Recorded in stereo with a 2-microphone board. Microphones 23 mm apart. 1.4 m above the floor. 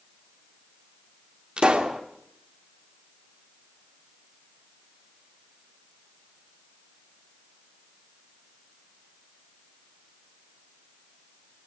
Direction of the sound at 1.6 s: 45° right (ahead or behind).